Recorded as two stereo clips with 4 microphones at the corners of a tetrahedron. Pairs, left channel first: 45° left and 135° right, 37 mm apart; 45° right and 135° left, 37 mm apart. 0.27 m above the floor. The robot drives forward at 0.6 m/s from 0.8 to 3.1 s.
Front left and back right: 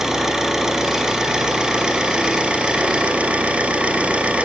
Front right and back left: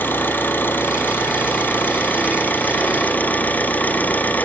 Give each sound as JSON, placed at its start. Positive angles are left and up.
{"t": 0.0, "sound": "an engine running", "azimuth_deg": -60, "distance_m": 3.5}